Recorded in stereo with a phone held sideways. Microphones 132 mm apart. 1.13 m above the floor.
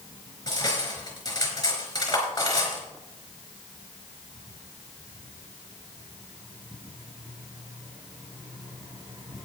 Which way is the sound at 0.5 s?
30° left (ahead or behind).